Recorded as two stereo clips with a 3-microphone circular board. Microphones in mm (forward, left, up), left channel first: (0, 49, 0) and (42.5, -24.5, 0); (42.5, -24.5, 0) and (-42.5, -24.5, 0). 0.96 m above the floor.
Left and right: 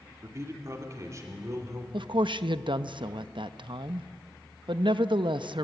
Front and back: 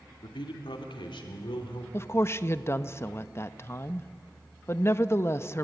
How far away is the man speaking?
About 2.5 m.